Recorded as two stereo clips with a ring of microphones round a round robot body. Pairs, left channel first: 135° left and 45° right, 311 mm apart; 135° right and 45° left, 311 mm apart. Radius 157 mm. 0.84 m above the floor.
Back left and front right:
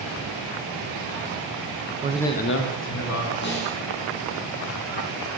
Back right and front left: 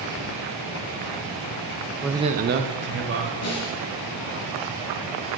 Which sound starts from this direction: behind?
A snare drum, at 3.4 s.